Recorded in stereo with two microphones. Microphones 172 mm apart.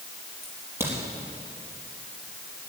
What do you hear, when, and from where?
0.4 s a crack: 15° right (ahead or behind), 4.5 m